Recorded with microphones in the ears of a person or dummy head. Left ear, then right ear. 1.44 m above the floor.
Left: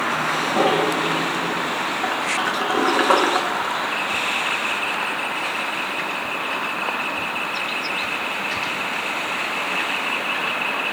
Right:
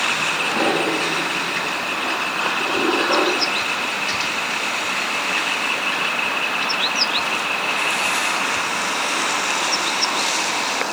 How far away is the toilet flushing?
About 0.9 m.